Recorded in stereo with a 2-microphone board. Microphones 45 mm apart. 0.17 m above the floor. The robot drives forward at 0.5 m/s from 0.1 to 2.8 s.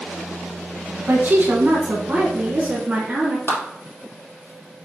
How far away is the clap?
About 2.5 m.